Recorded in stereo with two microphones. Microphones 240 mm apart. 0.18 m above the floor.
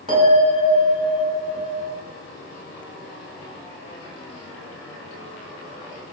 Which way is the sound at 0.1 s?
25° right (ahead or behind).